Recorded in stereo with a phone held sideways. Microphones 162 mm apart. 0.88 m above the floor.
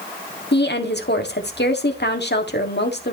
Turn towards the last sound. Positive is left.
turn(degrees=80)